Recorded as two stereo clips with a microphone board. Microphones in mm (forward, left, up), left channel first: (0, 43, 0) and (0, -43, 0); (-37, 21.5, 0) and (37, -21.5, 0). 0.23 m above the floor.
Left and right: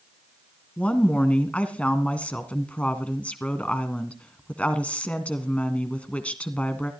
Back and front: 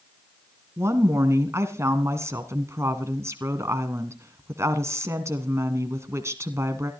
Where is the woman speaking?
20° left, 1.7 m.